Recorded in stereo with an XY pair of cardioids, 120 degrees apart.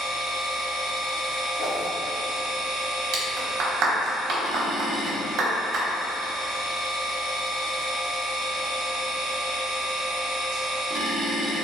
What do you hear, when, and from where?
0.0 s a machine running: 60° right, 1.0 m
1.6 s a whoosh: 70° left, 1.5 m
3.1 s a clap: 65° right, 0.9 m